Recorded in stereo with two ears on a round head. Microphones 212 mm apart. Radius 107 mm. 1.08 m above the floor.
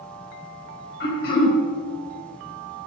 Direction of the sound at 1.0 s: 45° left (ahead or behind).